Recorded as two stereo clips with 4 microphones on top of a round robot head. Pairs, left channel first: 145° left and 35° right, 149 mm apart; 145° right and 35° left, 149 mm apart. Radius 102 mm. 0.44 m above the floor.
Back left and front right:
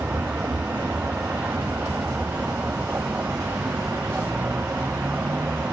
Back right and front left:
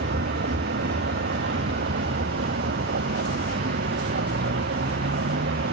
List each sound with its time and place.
0.0 s a vehicle: 45° left